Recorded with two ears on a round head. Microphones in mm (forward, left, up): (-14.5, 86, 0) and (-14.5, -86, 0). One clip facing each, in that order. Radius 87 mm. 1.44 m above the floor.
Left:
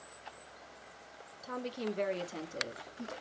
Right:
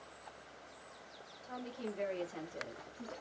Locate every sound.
1.4 s a woman speaking: 75° left (ahead or behind), 0.9 m; by 3.1 s 35° left (ahead or behind), 1.3 m